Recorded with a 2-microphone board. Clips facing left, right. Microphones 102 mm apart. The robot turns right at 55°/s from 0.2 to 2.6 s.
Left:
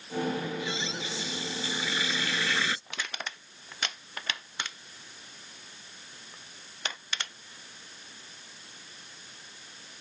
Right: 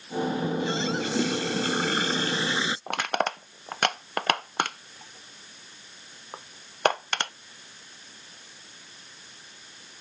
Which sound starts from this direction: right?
Crushing, at 2.9 s.